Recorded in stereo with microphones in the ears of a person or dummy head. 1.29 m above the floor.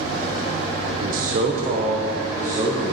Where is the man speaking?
55° right (ahead or behind), 0.6 m; by 2.9 s 20° right (ahead or behind), 1.6 m.